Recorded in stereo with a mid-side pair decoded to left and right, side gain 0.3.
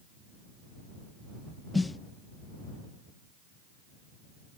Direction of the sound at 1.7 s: 35° left.